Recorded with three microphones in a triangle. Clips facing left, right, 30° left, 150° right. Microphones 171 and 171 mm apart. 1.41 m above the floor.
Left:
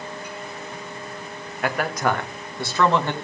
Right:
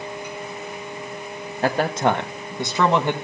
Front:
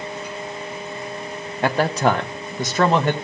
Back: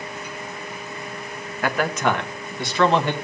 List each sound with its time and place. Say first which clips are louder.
1.6 s a man speaking: right 3 dB, front 3 dB; 35° right, 1.2 m; by 3.1 s 15° right, 2 m